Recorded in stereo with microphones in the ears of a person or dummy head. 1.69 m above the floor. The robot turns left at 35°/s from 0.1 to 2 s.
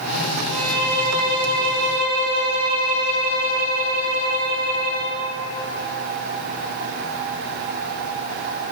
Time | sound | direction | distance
0.5 | a violin | 100° right | 1.4 m